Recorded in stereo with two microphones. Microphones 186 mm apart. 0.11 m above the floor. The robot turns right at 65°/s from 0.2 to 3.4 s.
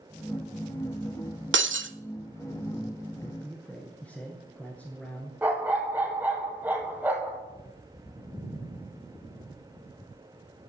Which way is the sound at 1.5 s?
75° right (ahead or behind).